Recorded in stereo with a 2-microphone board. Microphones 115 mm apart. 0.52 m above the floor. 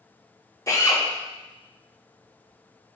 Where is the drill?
30° left (ahead or behind), 0.8 m.